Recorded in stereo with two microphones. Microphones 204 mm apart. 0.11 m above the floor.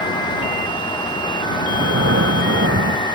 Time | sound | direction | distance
1.7 | breathing | 80° right | ?